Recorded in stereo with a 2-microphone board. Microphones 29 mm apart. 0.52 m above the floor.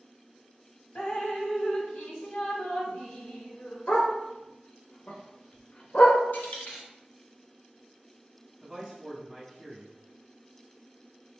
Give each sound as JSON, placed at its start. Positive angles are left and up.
{"t": 0.9, "sound": "dripping", "side_deg": 55, "distance_m": 0.9}
{"t": 3.9, "sound": "a dog barking", "side_deg": 55, "distance_m": 0.7}
{"t": 6.3, "sound": "a dropped coin", "side_deg": 85, "distance_m": 0.8}
{"t": 8.6, "sound": "a man speaking", "side_deg": -10, "distance_m": 0.6}